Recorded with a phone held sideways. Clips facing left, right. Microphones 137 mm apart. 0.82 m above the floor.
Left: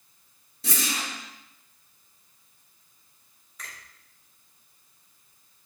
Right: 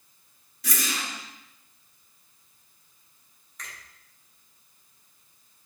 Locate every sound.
0.6 s a whoosh: 30° left (ahead or behind), 1.9 m
3.6 s a finger snap: centre (ahead or behind), 3 m